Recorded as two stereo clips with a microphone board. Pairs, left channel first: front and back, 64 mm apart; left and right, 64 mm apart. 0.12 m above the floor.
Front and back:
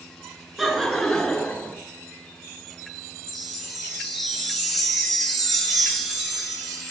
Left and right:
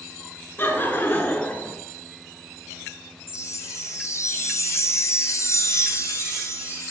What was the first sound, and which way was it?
Laughter, 95° left.